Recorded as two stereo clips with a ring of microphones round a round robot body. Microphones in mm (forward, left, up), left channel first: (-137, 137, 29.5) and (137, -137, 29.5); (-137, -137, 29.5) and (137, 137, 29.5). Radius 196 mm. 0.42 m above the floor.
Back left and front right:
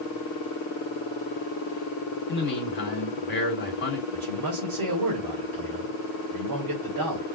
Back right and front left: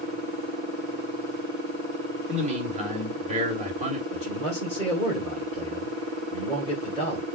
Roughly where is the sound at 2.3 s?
Left.